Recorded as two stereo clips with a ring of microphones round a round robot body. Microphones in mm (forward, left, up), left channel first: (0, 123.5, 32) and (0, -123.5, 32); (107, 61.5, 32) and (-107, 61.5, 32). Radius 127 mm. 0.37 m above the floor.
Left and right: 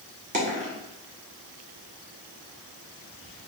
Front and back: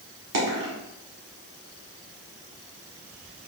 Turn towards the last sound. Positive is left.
turn(degrees=-150)